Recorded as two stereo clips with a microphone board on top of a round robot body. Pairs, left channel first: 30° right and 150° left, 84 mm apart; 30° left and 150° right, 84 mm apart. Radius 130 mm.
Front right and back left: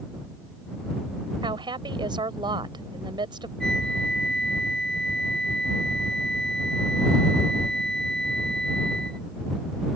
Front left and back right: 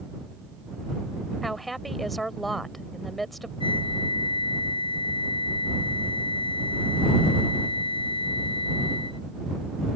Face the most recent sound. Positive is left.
turn(degrees=55)